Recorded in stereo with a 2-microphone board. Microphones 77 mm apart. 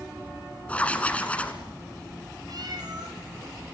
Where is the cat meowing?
60° right (ahead or behind), 4 m.